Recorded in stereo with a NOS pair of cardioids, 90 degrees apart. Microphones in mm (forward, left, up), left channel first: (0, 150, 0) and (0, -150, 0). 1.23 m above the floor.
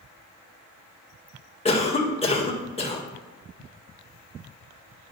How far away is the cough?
About 1.6 m.